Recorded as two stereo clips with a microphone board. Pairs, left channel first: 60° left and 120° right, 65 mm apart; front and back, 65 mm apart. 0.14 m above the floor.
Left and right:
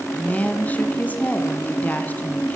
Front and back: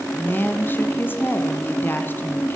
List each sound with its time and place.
0.1 s a woman speaking: 20° left, 1.3 m